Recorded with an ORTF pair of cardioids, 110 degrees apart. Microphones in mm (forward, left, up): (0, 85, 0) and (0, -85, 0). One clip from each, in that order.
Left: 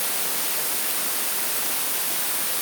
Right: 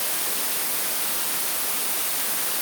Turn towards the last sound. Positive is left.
No sound to turn to.